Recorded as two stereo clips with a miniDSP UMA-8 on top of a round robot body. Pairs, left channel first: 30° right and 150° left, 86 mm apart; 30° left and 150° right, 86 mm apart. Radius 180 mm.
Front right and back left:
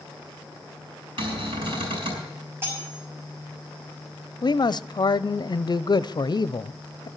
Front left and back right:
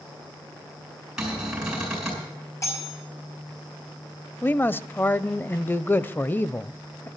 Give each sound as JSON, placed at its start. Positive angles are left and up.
{"t": 1.2, "sound": "a cupboard door", "azimuth_deg": 125, "distance_m": 7.0}
{"t": 2.6, "sound": "cutlery clinking", "azimuth_deg": 85, "distance_m": 5.5}
{"t": 4.4, "sound": "a man speaking", "azimuth_deg": -30, "distance_m": 0.8}